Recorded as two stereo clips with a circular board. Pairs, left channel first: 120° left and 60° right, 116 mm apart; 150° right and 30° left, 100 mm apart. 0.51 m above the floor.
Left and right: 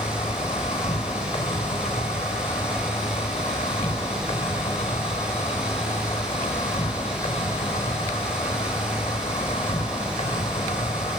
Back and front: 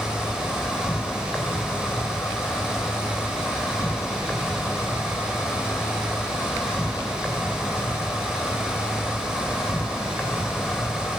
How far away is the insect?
About 2.5 m.